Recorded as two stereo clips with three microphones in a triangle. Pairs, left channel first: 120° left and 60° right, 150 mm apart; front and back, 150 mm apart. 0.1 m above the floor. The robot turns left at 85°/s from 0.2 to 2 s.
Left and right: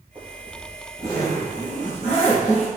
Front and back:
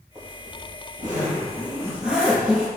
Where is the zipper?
110° right, 1.5 m; by 2.7 s 95° left, 1.5 m.